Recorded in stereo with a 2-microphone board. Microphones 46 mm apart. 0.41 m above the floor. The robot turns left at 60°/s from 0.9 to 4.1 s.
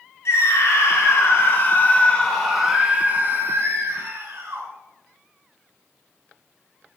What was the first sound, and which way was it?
A scream, 95° left.